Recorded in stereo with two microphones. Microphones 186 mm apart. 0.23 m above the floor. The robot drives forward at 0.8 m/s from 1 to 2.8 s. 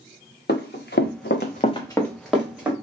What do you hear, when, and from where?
0.5 s running footsteps: 65° left (ahead or behind), 1.4 m; by 2.7 s 10° right (ahead or behind), 2 m